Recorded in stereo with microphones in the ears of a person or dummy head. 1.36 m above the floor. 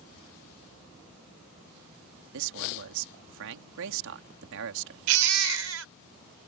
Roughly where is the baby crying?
Right.